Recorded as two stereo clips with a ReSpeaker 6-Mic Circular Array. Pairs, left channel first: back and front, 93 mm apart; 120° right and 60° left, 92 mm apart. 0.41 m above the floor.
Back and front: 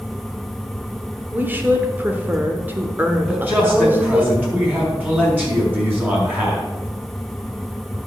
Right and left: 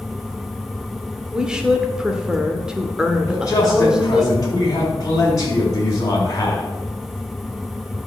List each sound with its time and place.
1.3 s a woman speaking: 10° right, 1.0 m
3.3 s a man speaking: 70° right, 4 m